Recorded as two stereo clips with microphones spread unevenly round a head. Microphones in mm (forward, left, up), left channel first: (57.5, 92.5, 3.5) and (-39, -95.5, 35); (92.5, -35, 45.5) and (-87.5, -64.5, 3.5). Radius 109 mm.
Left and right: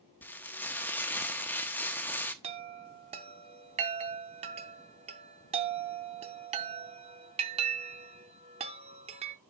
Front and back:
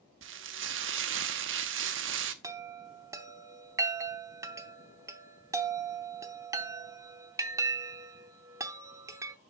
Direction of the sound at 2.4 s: 90° right.